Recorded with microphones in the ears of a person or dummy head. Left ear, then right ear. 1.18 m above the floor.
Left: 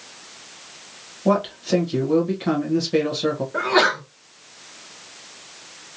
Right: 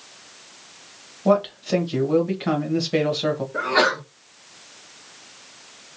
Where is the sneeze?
40° left (ahead or behind), 1.2 m.